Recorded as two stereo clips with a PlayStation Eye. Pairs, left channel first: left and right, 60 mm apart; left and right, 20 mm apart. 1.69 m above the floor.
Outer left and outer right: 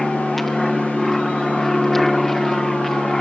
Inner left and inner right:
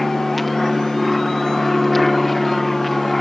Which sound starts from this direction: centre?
An aircraft, at 0.0 s.